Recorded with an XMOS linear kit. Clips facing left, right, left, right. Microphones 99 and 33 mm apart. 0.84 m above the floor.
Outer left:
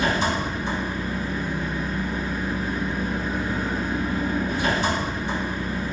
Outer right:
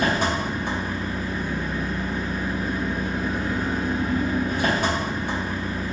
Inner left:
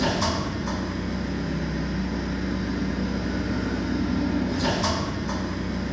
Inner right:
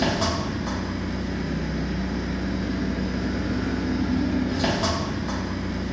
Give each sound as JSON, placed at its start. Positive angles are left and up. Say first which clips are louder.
{"t": 0.0, "sound": "an engine running", "louder": "even, inner right 1 dB", "side_deg": -50, "distance_m": 1.2}